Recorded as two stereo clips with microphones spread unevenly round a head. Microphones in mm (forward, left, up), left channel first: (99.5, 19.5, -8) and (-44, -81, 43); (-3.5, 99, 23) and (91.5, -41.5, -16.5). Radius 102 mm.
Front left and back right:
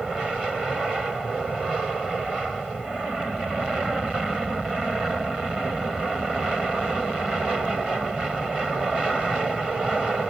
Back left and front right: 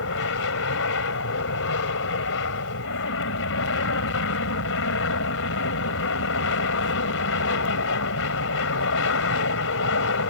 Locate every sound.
0.0 s an aircraft: 125° left